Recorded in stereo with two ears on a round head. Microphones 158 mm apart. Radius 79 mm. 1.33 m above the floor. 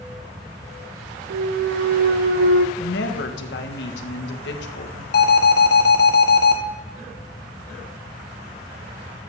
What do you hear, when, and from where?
1.3 s a clunk: 65° right (ahead or behind), 0.7 m
2.8 s a woman speaking: 70° left (ahead or behind), 1.6 m
5.1 s an alarm: 60° left (ahead or behind), 1.6 m